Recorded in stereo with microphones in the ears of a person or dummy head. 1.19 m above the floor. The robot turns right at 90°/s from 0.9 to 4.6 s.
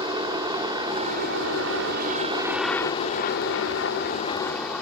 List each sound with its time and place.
0.0 s a helicopter: 155° right; by 4.8 s straight behind